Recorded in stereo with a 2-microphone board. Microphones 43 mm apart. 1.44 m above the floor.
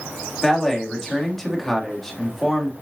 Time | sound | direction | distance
0.4 | a man speaking | 10° left (ahead or behind) | 3 m